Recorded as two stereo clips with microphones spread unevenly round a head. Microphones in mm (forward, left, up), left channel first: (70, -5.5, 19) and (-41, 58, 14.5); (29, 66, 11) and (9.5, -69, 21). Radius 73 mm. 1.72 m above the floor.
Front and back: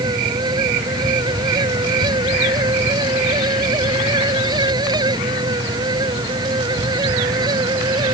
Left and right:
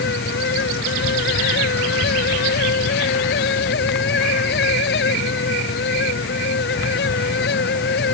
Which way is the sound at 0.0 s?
90° left.